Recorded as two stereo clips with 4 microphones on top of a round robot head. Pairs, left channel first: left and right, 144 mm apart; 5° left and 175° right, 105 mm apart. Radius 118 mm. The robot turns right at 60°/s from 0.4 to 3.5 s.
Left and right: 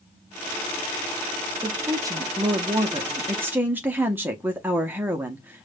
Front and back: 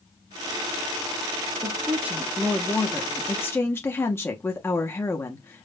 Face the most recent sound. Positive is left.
turn(degrees=-30)